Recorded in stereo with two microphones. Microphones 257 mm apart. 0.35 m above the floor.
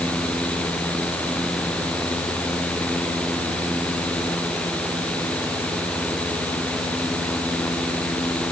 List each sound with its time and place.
Only background noise.